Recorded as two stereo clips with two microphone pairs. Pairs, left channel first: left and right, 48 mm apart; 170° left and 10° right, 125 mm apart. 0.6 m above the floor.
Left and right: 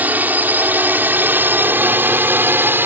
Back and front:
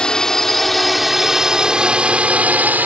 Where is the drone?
110° right; by 2.9 s 80° right.